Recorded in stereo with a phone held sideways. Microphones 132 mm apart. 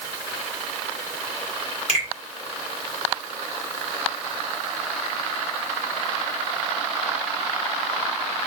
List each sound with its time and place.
1.9 s a finger snap: 55° right (ahead or behind), 1.7 m